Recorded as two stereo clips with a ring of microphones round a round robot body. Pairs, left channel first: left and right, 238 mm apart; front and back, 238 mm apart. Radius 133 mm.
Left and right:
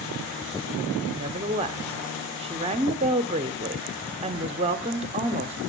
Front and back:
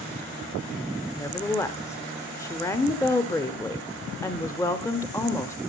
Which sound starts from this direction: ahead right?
A woman speaking, at 1.2 s.